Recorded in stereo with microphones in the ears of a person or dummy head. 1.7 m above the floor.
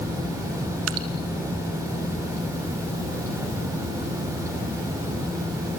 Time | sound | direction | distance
0.9 | dripping | 85° right | 1.6 m